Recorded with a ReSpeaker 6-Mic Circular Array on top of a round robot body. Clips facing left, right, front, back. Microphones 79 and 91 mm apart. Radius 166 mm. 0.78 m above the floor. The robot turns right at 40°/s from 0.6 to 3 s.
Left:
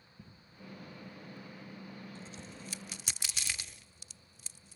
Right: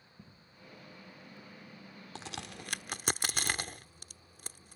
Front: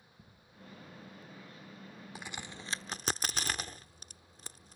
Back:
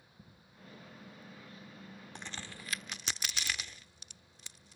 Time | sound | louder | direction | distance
2.1 | a crack | right 4 dB, front 2 dB | 85° right | ?